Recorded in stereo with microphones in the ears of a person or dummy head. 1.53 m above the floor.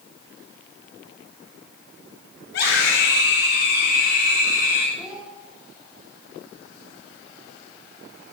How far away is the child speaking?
About 3 m.